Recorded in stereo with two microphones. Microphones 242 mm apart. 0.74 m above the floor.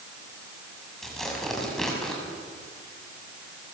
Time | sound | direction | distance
1.0 | tearing paper | centre (ahead or behind) | 6.5 m